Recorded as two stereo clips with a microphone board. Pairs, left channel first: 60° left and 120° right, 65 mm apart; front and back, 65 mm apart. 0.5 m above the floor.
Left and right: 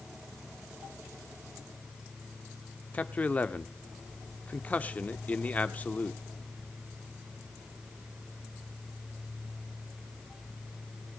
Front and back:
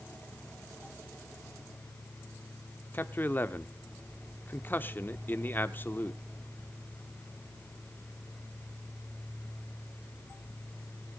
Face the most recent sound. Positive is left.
turn(degrees=15)